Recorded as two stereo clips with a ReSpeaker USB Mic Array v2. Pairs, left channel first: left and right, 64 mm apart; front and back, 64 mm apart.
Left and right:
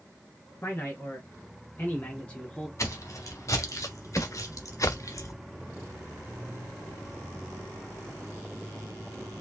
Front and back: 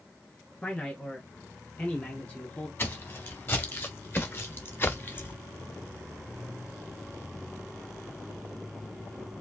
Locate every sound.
0.6 s a man speaking: 65° left, 2 m; by 2.7 s 15° left, 1.4 m
2.8 s footsteps: 55° left, 2.5 m; by 5.3 s 60° left, 0.6 m